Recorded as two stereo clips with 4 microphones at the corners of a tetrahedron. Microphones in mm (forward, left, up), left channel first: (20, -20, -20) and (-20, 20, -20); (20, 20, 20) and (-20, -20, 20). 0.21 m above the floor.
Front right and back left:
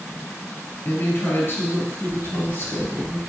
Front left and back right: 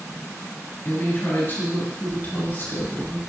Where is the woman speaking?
Straight ahead, 3.5 m.